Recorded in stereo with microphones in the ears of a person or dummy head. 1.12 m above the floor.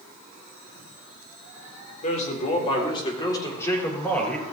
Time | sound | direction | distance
2.0 | a man speaking | 45° left (ahead or behind) | 3.5 m